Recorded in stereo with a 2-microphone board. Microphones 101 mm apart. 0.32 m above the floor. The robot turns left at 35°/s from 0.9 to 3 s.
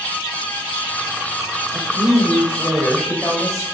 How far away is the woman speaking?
About 1.0 m.